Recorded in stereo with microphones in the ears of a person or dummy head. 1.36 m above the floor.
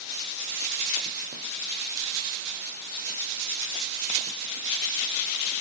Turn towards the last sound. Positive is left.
No sound to turn to.